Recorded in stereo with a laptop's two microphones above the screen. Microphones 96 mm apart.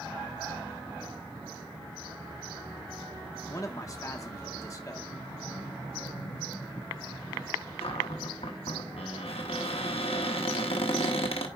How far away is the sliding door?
About 3 m.